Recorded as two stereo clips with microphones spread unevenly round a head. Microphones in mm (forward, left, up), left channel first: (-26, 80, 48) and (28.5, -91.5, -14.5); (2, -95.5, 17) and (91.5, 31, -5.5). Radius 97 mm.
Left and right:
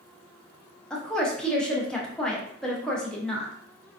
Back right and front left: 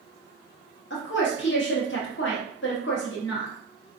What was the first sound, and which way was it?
A woman speaking, 165° right.